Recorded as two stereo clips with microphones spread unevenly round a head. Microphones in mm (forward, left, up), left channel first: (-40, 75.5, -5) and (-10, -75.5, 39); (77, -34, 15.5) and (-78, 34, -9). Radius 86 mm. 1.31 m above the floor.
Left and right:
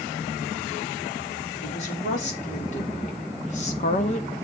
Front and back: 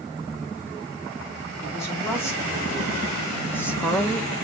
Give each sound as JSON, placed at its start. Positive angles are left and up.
{"t": 1.6, "sound": "a woman speaking", "azimuth_deg": 55, "distance_m": 4.0}